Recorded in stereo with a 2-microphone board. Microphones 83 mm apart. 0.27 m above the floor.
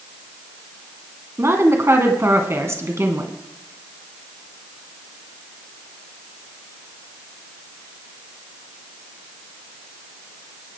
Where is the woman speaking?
35° right (ahead or behind), 2.5 m.